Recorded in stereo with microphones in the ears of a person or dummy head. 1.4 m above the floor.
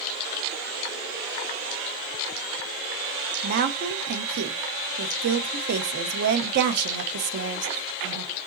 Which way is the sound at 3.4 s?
55° right (ahead or behind).